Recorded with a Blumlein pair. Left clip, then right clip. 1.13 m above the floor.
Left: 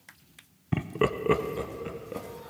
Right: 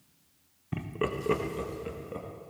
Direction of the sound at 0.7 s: 20° left.